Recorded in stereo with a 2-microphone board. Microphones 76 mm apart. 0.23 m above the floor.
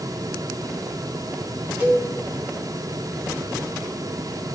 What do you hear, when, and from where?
1.8 s a cowbell: 25° right (ahead or behind), 1.8 m